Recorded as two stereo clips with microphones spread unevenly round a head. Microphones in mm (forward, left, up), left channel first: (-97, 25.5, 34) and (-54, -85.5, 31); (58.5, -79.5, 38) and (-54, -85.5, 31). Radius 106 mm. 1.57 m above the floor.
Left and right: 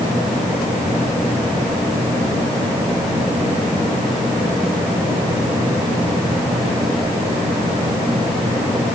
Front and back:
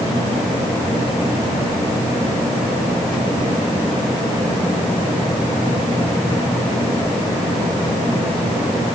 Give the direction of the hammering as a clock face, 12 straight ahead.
I don't hear hammering.